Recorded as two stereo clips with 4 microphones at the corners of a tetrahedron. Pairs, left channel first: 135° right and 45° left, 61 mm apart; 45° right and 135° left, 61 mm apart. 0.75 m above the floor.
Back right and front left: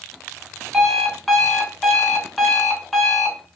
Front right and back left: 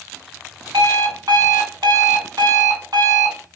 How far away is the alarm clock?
About 1.3 m.